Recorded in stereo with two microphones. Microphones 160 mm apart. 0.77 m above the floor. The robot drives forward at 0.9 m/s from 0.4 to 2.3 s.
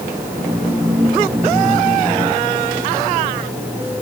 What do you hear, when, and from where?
Only background noise.